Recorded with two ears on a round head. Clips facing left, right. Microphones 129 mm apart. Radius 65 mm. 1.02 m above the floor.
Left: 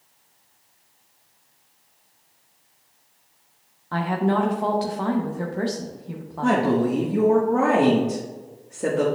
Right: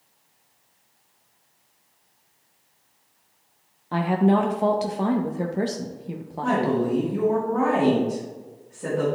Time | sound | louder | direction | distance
3.9 | a woman speaking | right 2 dB | 20° right (ahead or behind) | 0.5 m
6.4 | a woman speaking | left 2 dB | 60° left (ahead or behind) | 1.3 m